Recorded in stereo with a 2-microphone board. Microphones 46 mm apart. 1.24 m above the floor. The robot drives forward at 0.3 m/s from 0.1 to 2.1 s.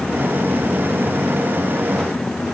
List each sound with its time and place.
Only background noise.